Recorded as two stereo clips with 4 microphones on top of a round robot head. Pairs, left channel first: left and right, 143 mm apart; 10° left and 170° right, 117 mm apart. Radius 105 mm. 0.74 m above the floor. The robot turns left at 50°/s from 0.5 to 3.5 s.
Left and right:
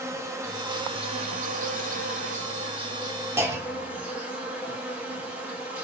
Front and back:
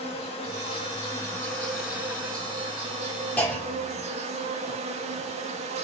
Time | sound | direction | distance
0.0 | an insect | 20° right | 0.8 m
3.4 | a clunk | 50° right | 1.1 m